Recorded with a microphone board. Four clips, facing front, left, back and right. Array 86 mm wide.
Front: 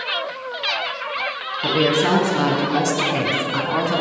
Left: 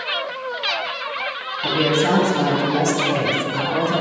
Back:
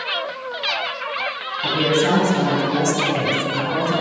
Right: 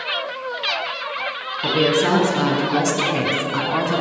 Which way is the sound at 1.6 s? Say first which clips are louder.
Right 1 dB, front 1 dB; 40° right.